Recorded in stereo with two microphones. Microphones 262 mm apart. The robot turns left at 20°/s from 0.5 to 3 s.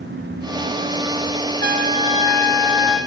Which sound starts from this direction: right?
A trumpet, at 1.6 s.